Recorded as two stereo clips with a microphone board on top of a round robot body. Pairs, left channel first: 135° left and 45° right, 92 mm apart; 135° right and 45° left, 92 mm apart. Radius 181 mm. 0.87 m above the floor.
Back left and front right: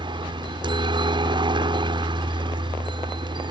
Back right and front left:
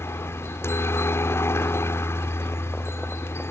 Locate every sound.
0.0 s a helicopter: 75° right